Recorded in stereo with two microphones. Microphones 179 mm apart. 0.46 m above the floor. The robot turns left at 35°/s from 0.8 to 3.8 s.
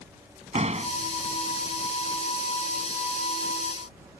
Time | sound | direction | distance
0.5 | a door slam | 40° right (ahead or behind) | ?